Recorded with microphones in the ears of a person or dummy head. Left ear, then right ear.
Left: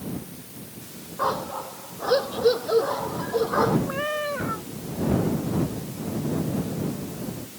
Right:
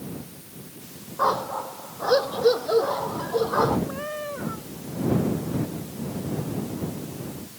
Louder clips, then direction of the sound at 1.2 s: Right 3 dB; 10° right (ahead or behind).